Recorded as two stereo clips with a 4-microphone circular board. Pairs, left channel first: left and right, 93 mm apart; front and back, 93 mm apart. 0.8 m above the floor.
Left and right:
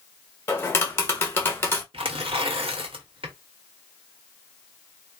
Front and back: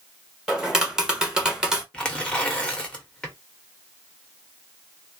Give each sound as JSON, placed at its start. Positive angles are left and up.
{"t": 0.5, "sound": "tapping", "azimuth_deg": 105, "distance_m": 1.1}
{"t": 1.9, "sound": "tearing paper", "azimuth_deg": -80, "distance_m": 1.2}